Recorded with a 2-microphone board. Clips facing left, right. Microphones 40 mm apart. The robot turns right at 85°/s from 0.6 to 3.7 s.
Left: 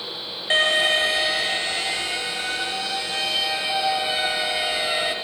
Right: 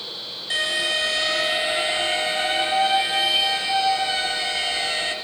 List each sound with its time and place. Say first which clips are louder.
0.5 s an alarm: left 4 dB; 120° left, 2.5 m; by 5.2 s 25° left, 2.5 m